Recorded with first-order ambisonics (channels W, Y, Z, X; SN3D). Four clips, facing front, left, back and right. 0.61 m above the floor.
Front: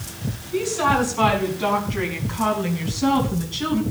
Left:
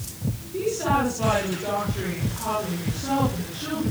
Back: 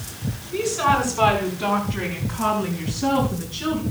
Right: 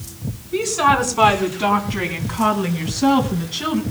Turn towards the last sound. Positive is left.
turn(degrees=-65)